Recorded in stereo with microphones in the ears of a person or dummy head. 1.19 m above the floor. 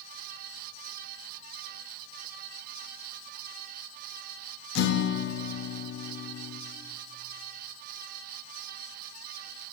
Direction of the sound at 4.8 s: 75° left (ahead or behind).